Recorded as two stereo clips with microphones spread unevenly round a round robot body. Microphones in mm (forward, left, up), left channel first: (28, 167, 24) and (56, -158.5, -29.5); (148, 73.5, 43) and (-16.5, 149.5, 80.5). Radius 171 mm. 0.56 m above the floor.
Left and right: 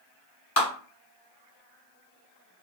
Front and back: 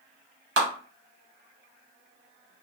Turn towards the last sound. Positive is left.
turn(degrees=150)